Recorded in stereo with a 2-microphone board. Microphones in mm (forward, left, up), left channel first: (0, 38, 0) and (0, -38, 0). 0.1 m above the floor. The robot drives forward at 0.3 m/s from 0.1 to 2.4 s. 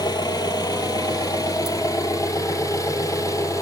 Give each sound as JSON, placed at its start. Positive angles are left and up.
{"t": 0.0, "sound": "an engine running", "side_deg": 60, "distance_m": 1.3}